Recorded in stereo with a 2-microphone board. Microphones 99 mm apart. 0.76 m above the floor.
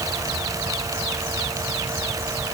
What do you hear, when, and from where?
Only background noise.